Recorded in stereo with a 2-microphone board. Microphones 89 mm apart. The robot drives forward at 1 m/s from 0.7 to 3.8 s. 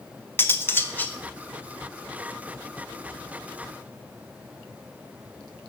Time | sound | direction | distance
0.4 | cutlery clinking | 25° left (ahead or behind) | 0.5 m